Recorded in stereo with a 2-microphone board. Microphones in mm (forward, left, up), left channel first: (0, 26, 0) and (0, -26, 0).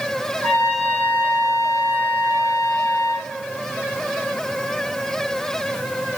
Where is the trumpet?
25° left (ahead or behind), 4.5 m.